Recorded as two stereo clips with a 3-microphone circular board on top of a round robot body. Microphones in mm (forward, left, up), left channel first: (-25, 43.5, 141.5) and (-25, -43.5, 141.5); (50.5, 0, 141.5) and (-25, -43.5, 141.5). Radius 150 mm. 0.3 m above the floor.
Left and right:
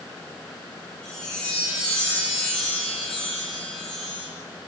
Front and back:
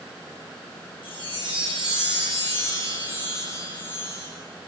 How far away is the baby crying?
No baby crying in this recording.